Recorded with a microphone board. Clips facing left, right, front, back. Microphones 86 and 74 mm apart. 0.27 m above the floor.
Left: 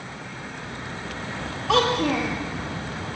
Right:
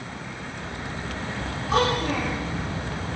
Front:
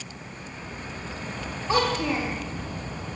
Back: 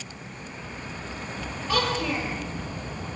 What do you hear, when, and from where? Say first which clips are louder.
1.7 s a child speaking: left 2 dB, front 2 dB; 65° left, 6 m